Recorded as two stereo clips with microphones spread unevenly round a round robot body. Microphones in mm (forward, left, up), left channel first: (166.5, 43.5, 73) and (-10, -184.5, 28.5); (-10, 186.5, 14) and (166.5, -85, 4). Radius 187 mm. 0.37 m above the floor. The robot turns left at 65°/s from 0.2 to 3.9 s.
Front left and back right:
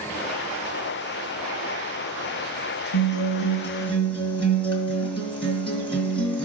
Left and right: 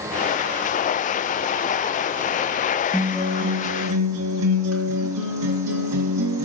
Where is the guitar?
40° left, 1.8 m; by 6.5 s 25° right, 1.8 m.